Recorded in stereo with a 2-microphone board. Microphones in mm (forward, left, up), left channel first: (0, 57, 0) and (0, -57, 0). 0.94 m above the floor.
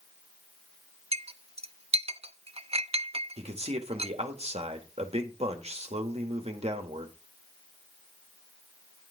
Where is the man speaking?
65° right (ahead or behind), 2.0 m.